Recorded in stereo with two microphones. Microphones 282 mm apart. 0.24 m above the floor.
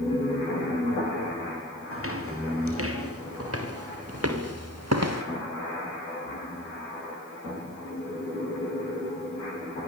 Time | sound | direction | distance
1.9 | footsteps | 50° right (ahead or behind) | 5 m